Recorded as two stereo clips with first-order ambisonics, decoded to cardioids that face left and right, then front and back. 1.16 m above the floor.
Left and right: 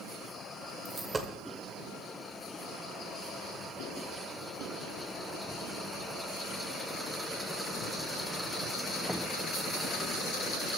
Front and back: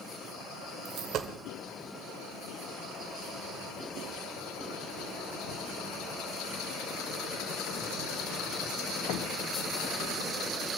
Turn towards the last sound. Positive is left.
turn(degrees=-160)